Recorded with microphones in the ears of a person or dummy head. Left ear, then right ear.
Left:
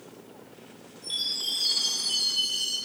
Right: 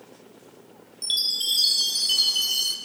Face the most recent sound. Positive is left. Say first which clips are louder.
# right 5 dB
turn(degrees=-55)  # may be behind; listen again after turning